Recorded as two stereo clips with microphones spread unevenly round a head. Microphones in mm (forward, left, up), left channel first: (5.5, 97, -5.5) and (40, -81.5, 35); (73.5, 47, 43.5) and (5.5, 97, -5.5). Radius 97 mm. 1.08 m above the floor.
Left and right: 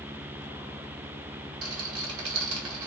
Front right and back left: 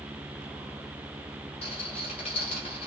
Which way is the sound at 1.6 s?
80° right.